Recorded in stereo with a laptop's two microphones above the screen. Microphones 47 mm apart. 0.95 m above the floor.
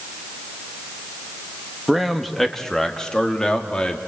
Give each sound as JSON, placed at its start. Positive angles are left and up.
{"t": 1.9, "sound": "a man speaking", "side_deg": 0, "distance_m": 1.6}